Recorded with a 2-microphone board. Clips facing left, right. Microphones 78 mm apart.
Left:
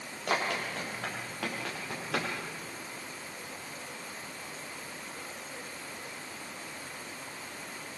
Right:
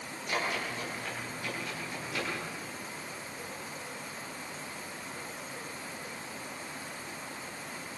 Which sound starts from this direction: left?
Running footsteps, at 0.3 s.